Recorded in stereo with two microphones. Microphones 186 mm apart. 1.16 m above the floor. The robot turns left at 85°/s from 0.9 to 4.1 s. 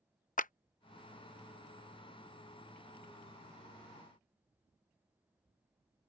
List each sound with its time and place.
0.4 s a clap: 45° left (ahead or behind)